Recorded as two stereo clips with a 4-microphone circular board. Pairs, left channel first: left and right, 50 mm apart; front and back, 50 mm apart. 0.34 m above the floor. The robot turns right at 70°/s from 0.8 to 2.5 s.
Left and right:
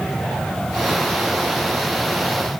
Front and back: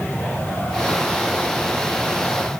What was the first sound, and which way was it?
Only background noise.